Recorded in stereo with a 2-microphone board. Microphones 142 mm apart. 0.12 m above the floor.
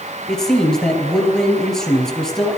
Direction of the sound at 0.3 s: 5° left (ahead or behind).